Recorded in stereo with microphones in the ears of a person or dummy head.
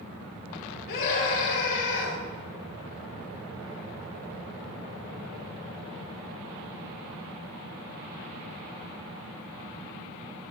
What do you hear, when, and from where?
0.9 s a scream: 55° left (ahead or behind), 4.5 m